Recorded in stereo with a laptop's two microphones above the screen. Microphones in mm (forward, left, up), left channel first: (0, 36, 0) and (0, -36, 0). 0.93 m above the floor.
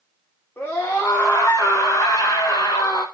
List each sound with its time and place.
0.6 s a scream: 30° left (ahead or behind), 3.5 m; by 3.0 s 60° left (ahead or behind), 1.8 m